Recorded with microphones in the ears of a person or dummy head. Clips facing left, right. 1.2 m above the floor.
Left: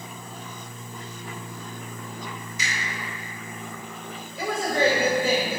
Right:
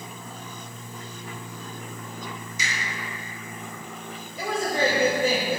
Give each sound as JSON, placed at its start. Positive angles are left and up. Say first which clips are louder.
{"t": 2.6, "sound": "a finger snap", "louder": "even", "side_deg": -80, "distance_m": 1.8}
{"t": 4.4, "sound": "a woman speaking", "louder": "left 1 dB", "side_deg": -80, "distance_m": 2.0}